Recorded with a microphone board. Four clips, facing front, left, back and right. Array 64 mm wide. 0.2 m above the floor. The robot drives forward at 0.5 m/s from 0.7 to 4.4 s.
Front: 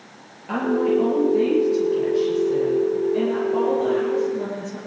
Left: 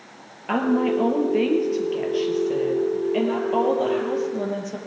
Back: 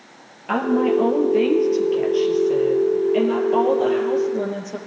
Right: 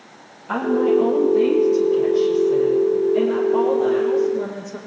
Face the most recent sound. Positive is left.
turn(degrees=135)